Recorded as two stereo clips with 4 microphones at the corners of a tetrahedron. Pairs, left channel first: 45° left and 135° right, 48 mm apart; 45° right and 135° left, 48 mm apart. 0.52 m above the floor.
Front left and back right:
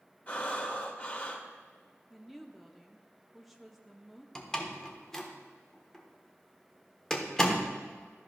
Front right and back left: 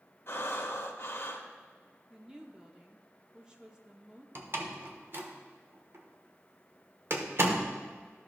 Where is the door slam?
120° left, 1.0 m.